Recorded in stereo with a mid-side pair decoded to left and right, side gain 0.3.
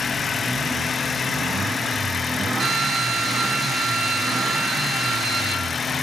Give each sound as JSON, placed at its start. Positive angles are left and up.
{"t": 2.6, "sound": "a drill", "azimuth_deg": -65, "distance_m": 8.5}